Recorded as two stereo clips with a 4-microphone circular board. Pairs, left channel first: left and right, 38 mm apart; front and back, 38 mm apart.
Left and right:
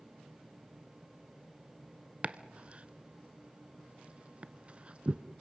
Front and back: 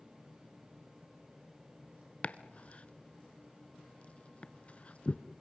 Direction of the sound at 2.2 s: 40° right.